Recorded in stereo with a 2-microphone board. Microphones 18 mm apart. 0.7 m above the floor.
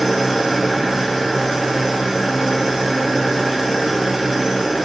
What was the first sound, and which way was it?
An engine running, 10° right (ahead or behind).